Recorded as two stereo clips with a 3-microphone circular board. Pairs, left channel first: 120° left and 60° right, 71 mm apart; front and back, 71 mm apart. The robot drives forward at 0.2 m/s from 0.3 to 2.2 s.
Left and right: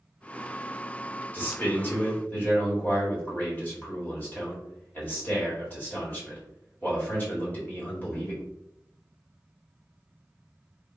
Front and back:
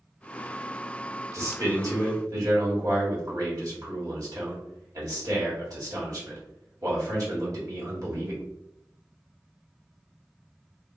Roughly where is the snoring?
No snoring in this recording.